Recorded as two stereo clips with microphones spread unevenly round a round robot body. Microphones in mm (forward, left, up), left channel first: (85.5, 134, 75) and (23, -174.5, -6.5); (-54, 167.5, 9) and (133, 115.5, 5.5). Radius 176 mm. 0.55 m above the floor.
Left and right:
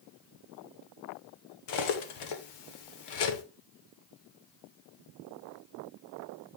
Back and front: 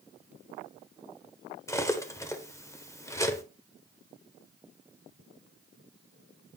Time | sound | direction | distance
1.7 | cutlery clinking | 90° left | 1.4 m